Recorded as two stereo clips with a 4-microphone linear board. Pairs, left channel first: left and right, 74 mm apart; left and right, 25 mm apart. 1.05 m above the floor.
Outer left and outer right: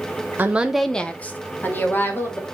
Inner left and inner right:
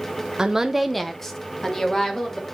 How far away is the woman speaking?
About 0.6 m.